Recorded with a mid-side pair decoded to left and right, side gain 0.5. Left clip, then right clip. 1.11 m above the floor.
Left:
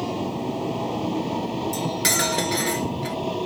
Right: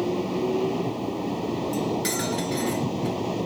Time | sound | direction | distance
1.7 | cutlery clinking | 50° left | ?